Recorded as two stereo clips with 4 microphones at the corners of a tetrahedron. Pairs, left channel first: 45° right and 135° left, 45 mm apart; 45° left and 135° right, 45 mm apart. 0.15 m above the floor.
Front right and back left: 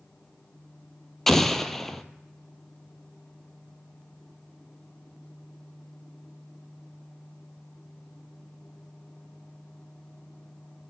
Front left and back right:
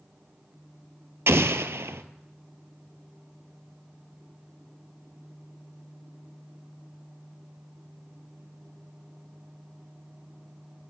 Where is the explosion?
130° right, 0.6 m.